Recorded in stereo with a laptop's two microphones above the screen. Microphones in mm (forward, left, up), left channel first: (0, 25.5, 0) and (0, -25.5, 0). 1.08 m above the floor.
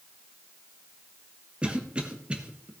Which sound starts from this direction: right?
A cough, at 1.6 s.